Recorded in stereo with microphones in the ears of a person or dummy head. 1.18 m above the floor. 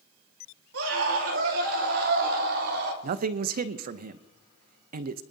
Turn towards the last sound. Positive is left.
turn(degrees=-45)  # may be behind; listen again after turning